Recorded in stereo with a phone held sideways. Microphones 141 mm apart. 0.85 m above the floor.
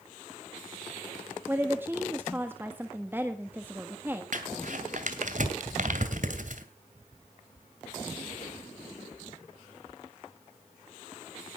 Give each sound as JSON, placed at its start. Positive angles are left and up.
{"t": 1.5, "sound": "a woman speaking", "side_deg": -15, "distance_m": 1.3}
{"t": 4.3, "sound": "crumpling", "side_deg": -65, "distance_m": 2.5}